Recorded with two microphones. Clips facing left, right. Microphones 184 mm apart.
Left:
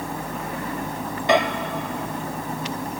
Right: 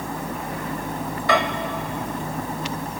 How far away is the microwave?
About 0.8 m.